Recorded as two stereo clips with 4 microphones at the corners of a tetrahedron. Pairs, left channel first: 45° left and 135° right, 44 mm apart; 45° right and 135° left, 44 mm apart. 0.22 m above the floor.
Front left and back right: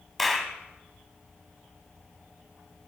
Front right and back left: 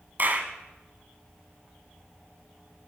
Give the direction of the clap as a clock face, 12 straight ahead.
8 o'clock.